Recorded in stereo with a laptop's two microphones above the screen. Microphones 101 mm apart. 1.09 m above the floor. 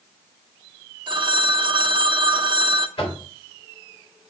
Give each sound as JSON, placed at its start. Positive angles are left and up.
{"t": 1.1, "sound": "a phone ringing", "side_deg": -50, "distance_m": 0.7}
{"t": 3.0, "sound": "knocking", "side_deg": 60, "distance_m": 2.5}